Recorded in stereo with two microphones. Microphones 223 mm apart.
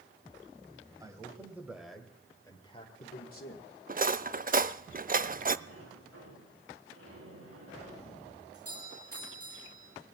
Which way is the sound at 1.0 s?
15° right (ahead or behind).